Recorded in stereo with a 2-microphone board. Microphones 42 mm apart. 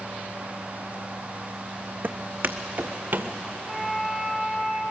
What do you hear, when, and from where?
2.0 s footsteps: 50° right (ahead or behind), 1.0 m; by 3.3 s 60° right (ahead or behind), 1.6 m
3.7 s a flute: centre (ahead or behind), 3 m